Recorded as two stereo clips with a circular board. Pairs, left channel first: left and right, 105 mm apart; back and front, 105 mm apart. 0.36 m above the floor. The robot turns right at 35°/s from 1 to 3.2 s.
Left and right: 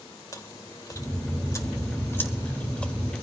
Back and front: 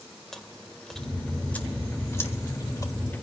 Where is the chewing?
95° left, 1.5 m; by 2.9 s 165° left, 1.5 m.